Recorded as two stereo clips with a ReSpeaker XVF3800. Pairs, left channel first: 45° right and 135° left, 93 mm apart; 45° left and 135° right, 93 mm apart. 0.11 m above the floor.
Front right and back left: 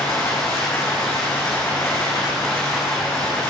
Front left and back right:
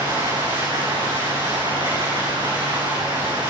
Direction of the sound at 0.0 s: 105° right.